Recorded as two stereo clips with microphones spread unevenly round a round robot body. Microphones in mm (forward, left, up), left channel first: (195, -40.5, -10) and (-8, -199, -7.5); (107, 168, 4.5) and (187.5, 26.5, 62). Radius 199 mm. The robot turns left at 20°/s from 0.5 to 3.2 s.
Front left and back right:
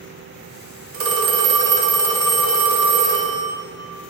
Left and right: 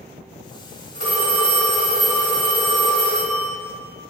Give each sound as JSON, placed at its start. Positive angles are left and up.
{"t": 0.9, "sound": "a phone ringing", "azimuth_deg": -95, "distance_m": 0.6}